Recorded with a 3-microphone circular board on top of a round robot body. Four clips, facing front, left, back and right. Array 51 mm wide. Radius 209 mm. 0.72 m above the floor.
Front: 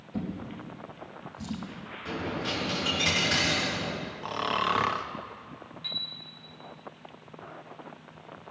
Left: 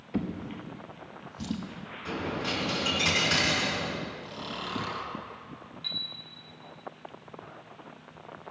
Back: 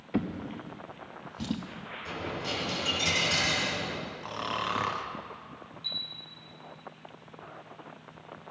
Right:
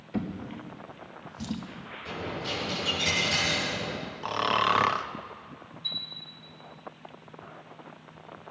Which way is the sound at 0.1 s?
Straight behind.